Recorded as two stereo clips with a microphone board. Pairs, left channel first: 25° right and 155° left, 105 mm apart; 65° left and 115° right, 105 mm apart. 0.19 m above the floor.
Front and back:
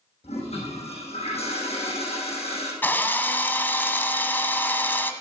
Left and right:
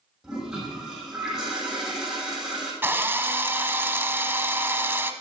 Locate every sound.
0.2 s a toilet flushing: 30° right, 5.5 m
2.8 s a drill: 70° right, 1.0 m